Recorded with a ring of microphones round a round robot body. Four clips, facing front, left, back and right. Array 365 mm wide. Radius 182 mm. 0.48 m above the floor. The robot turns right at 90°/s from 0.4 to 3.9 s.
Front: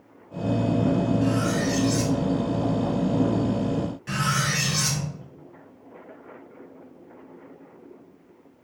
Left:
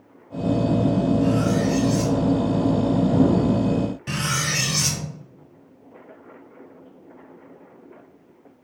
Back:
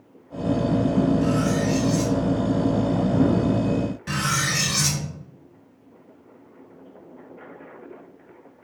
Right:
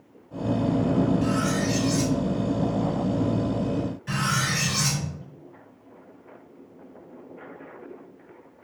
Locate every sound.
1.2 s cutlery clinking: 115° right, 0.9 m; by 2.2 s 30° right, 0.9 m
4.1 s cutlery clinking: 125° left, 0.7 m